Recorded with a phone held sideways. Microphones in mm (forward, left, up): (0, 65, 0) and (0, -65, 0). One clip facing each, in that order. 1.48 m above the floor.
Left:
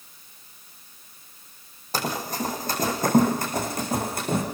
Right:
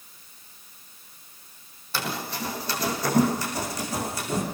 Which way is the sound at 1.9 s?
40° left (ahead or behind).